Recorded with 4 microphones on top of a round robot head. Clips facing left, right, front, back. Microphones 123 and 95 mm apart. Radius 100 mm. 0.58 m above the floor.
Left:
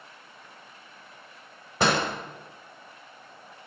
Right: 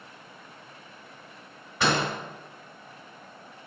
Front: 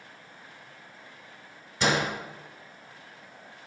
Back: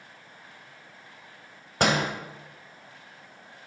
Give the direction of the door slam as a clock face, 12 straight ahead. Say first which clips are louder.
Left 1 dB, back 2 dB; 7 o'clock.